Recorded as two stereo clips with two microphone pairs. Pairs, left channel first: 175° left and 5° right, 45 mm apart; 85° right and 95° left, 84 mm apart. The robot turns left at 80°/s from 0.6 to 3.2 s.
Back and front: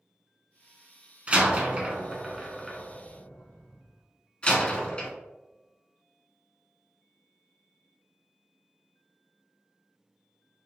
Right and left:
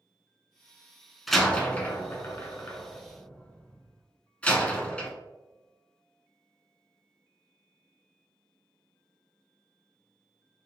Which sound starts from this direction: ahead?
A door slam, at 1.3 s.